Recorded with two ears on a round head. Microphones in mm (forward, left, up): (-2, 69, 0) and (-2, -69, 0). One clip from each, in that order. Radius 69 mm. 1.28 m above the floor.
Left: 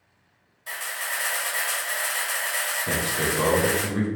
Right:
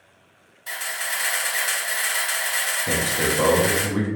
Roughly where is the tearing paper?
I don't hear tearing paper.